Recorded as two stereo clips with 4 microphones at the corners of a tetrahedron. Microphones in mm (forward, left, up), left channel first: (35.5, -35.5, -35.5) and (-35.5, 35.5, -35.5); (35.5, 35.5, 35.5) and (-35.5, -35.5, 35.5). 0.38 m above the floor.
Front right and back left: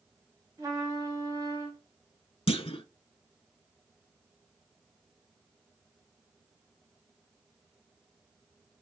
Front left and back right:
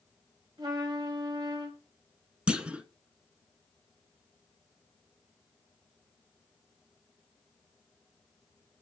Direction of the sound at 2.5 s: 55° right.